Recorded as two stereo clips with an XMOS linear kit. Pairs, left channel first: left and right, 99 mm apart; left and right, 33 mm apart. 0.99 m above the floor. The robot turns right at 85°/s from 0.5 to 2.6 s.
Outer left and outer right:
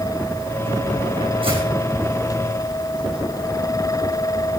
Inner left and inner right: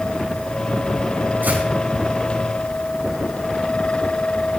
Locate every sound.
1.4 s footsteps: 60° right (ahead or behind), 4 m; by 1.6 s 75° right (ahead or behind), 4 m